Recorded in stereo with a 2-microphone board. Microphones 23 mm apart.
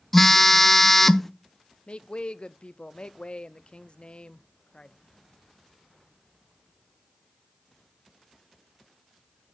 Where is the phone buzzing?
10° left (ahead or behind), 0.5 m.